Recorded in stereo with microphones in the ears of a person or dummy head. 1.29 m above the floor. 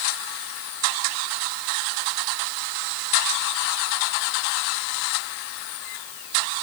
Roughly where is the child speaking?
I don't hear a child speaking.